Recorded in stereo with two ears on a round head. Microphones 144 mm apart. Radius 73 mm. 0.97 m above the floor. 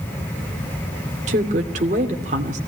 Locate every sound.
1.3 s a woman speaking: 45° right (ahead or behind), 2.5 m